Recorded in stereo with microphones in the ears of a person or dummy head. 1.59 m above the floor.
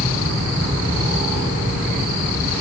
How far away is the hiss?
I don't hear a hiss.